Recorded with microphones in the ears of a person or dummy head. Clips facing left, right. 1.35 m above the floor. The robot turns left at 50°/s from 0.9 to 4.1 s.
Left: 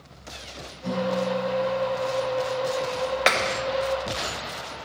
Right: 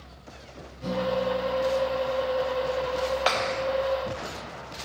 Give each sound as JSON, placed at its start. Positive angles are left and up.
{"t": 0.8, "sound": "a guitar", "azimuth_deg": -140, "distance_m": 9.5}
{"t": 3.3, "sound": "a clap", "side_deg": 35, "distance_m": 1.1}